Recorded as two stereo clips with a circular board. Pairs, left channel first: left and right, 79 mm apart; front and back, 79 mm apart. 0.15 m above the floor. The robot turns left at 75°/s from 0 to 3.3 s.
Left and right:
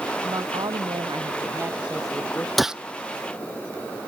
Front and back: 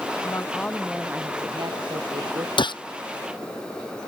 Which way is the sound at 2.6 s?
Straight ahead.